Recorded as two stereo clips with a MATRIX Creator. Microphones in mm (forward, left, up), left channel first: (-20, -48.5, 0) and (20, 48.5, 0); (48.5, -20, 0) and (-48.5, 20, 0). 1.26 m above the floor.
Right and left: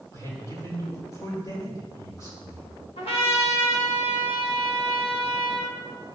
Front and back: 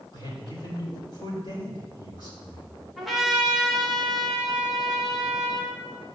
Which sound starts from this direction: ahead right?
A man speaking, at 0.1 s.